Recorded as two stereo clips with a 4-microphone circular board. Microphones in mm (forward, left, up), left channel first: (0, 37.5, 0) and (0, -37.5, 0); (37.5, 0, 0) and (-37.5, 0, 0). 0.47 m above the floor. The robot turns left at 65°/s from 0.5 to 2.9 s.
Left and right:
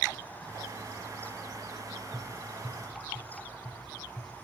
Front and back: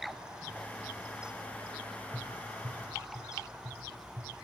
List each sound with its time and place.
2.1 s tapping: 155° right, 6 m; by 4.3 s 155° left, 6 m